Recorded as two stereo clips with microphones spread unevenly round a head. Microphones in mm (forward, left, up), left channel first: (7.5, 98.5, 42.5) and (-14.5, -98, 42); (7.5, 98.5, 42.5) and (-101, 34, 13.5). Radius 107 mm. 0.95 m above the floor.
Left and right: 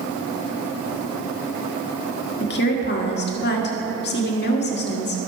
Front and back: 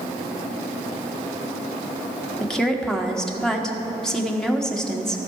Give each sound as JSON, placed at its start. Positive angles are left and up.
{"t": 2.4, "sound": "a woman speaking", "azimuth_deg": 120, "distance_m": 1.5}